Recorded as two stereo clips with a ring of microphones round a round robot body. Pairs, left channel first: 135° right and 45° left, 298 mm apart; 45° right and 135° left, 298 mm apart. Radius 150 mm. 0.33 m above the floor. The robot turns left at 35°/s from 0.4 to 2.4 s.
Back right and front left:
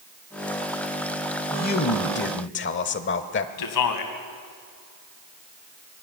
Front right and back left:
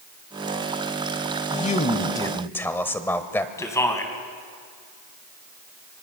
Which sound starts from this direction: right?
A man speaking, at 1.5 s.